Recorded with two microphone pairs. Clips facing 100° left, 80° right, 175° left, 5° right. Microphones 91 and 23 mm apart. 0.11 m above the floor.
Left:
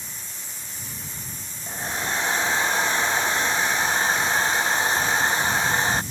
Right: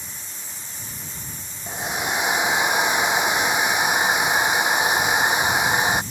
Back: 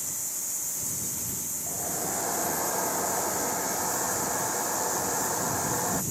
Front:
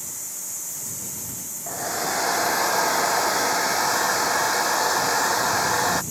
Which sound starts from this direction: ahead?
A hair dryer, at 1.7 s.